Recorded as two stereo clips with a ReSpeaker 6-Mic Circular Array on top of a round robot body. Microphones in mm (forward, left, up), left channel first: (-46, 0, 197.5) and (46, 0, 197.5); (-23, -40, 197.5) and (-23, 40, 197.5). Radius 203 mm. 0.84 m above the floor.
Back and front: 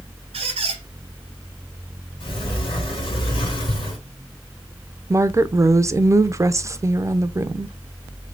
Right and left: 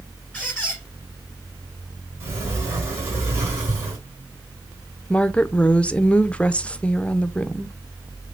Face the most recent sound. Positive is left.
turn(degrees=-30)